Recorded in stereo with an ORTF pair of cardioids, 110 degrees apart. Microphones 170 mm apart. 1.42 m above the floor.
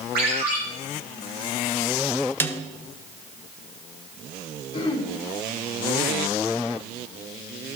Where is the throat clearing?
30° left, 2.0 m.